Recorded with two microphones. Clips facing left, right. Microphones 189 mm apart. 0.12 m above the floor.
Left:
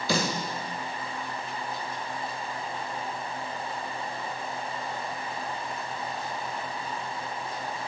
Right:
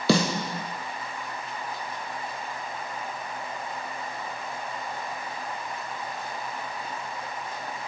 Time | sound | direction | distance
0.1 | a snare drum | 75° right (ahead or behind) | 1.1 m